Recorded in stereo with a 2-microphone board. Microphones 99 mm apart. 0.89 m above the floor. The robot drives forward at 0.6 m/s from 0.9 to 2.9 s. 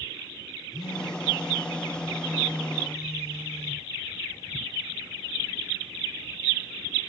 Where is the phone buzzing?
40° left (ahead or behind), 0.9 m; by 3.9 s 30° left (ahead or behind), 1.3 m.